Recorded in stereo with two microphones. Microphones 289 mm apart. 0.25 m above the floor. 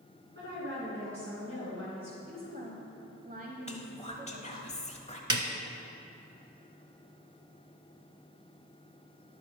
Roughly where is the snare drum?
Right.